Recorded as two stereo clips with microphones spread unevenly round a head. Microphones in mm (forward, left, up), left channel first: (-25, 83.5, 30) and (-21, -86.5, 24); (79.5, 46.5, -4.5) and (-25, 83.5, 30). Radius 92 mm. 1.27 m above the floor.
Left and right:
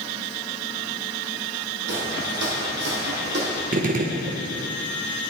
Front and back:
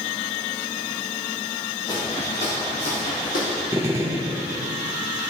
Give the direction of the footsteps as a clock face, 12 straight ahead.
3 o'clock.